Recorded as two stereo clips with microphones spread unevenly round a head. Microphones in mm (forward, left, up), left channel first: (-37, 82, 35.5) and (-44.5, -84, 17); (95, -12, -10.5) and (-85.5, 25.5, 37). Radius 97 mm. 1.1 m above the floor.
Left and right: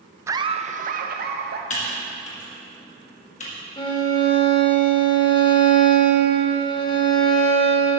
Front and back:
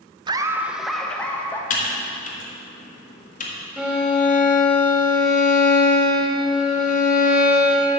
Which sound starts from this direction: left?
A violin, at 3.8 s.